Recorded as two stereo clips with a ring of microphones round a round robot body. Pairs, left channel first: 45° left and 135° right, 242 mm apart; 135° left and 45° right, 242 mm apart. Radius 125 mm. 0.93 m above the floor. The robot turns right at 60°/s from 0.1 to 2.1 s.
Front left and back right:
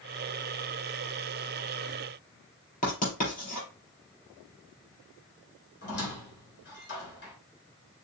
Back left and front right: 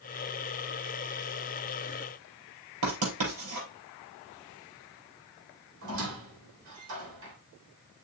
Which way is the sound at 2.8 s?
15° right.